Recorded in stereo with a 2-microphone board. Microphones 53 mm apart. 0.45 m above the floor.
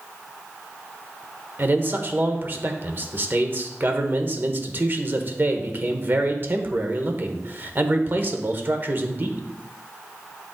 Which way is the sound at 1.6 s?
40° right (ahead or behind).